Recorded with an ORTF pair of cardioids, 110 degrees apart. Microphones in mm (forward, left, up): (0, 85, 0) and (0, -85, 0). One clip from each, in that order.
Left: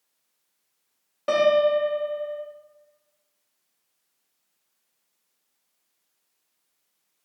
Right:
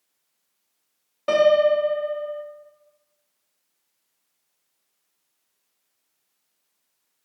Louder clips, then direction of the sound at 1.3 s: Right 2 dB; straight ahead.